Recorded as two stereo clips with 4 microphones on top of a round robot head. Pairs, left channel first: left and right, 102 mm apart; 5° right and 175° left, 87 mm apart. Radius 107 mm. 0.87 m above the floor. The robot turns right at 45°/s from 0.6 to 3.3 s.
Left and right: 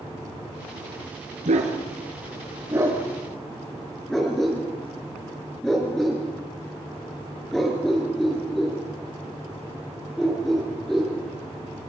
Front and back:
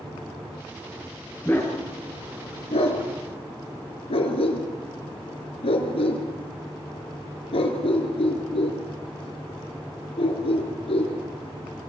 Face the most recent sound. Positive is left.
turn(degrees=5)